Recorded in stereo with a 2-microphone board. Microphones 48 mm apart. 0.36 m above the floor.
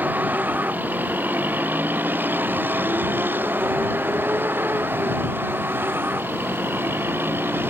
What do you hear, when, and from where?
0.0 s a vehicle: 40° right (ahead or behind); by 7.7 s 50° right (ahead or behind)